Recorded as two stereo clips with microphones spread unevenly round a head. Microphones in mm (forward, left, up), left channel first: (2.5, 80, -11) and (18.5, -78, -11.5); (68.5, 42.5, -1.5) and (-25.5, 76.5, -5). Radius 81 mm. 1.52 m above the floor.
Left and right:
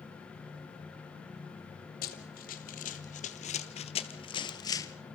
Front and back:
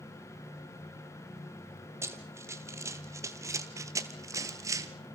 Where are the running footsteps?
100° left, 2.5 m; by 4.9 s 145° left, 1.6 m.